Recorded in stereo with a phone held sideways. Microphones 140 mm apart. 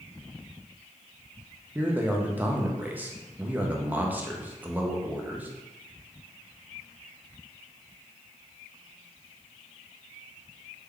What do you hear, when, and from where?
1.8 s a man speaking: 10° right (ahead or behind), 0.5 m